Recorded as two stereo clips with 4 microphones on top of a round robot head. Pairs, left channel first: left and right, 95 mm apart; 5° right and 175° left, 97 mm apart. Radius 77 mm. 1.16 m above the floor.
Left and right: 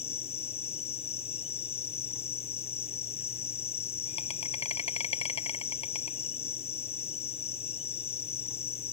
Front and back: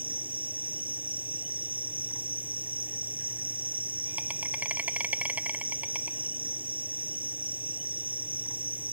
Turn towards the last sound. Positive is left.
turn(degrees=100)